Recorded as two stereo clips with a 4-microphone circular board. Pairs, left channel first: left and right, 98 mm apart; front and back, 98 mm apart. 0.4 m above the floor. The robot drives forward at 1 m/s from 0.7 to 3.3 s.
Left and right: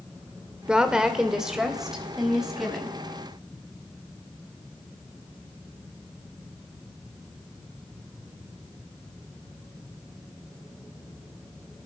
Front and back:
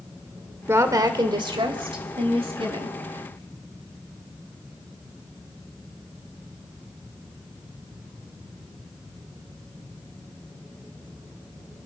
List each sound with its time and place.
0.7 s a woman speaking: 160° right, 1.0 m; by 3.0 s 175° right, 3 m